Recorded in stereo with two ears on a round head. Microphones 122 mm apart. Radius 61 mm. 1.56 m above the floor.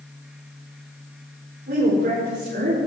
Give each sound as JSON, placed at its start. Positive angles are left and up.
{"t": 1.7, "sound": "a woman speaking", "side_deg": -80, "distance_m": 5.5}